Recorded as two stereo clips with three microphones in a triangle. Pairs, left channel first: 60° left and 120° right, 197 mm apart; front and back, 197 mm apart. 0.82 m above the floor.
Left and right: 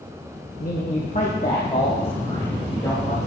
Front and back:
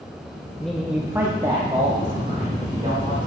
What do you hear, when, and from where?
0.6 s a man speaking: 85° left, 1.0 m; by 3.3 s 130° left, 2.5 m